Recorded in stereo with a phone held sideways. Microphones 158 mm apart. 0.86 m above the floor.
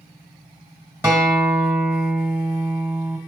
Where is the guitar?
15° right (ahead or behind), 1.8 m.